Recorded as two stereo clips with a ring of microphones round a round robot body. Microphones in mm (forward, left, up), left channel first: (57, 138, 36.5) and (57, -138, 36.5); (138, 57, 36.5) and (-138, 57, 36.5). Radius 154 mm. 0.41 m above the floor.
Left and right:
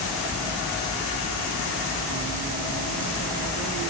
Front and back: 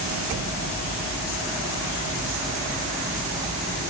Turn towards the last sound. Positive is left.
No sound to turn to.